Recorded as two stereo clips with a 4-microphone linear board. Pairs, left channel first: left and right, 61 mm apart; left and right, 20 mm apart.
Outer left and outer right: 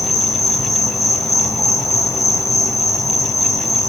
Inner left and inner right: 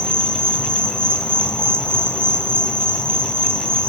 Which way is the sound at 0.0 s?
65° left (ahead or behind).